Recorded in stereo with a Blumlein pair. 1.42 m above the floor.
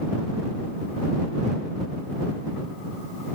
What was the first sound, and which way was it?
Only background noise.